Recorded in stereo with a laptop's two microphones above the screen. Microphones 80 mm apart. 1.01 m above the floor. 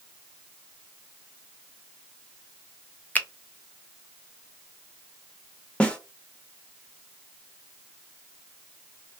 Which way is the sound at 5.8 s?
15° left (ahead or behind).